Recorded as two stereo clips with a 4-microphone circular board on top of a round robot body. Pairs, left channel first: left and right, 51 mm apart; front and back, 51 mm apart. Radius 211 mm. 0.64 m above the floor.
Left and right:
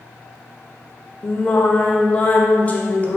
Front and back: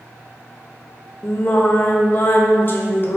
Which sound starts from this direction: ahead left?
Singing, at 1.2 s.